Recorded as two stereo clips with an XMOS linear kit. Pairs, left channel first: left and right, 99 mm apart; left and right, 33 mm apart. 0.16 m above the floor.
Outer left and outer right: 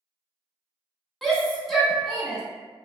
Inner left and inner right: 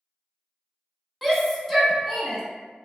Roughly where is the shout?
Centre.